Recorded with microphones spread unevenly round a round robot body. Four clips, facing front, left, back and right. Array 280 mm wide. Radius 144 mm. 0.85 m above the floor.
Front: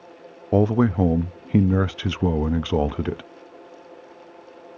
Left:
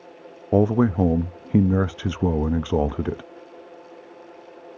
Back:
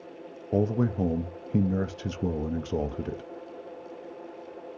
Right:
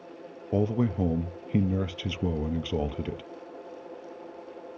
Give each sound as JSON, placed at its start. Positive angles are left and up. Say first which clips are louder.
{"t": 0.5, "sound": "a man speaking", "louder": "left 8 dB, front 7 dB", "azimuth_deg": 45, "distance_m": 0.7}